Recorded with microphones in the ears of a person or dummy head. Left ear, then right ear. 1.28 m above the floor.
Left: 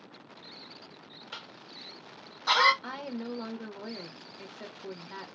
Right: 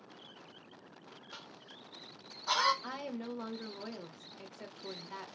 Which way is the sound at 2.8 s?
5° left (ahead or behind).